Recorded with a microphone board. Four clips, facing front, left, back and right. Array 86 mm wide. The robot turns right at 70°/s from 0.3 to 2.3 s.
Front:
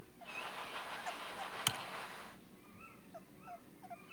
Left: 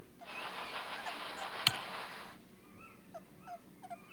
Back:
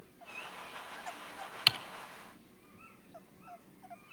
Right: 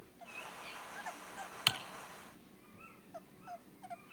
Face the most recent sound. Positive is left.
turn(degrees=-140)